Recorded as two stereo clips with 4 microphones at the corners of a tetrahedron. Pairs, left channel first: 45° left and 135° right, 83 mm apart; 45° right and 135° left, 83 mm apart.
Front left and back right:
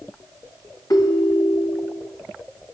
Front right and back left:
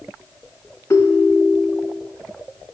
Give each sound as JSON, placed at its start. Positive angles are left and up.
{"t": 0.9, "sound": "a ringtone", "azimuth_deg": 5, "distance_m": 1.9}